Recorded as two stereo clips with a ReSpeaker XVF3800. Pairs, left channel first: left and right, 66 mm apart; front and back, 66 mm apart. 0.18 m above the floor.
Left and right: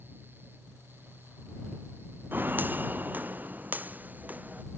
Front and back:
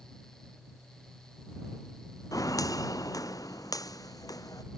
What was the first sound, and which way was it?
Footsteps, 30° right.